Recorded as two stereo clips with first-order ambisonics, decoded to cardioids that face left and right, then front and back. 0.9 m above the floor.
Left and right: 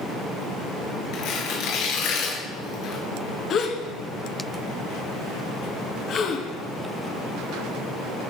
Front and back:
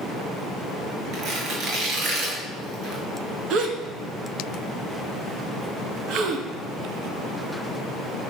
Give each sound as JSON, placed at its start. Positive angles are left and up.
{"t": 1.1, "sound": "tearing paper", "azimuth_deg": 130, "distance_m": 4.5}
{"t": 3.5, "sound": "a gasp", "azimuth_deg": 140, "distance_m": 1.8}